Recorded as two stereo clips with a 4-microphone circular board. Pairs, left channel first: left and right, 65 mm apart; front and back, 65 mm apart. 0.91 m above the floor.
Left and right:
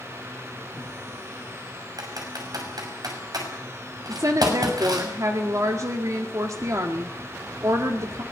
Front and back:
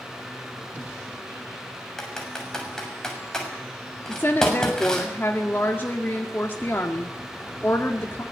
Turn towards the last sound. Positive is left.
turn(degrees=-55)